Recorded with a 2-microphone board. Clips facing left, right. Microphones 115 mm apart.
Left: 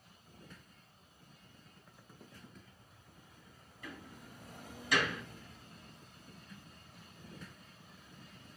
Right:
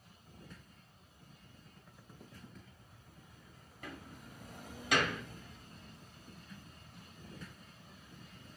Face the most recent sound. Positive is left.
turn(degrees=-65)  # may be behind; listen again after turning